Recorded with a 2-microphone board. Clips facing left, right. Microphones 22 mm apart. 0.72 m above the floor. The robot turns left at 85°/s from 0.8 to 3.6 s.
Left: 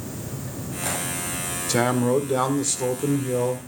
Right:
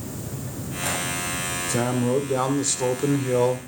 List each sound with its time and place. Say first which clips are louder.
1.7 s a man speaking: left 3 dB; 75° left, 2 m; by 3.6 s 85° right, 2 m